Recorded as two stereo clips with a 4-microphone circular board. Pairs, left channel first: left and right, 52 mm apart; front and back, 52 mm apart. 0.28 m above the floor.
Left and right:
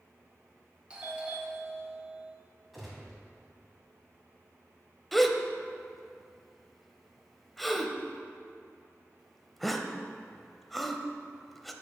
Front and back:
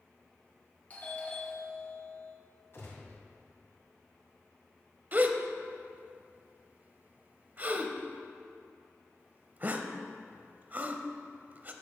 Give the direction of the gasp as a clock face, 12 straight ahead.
6 o'clock.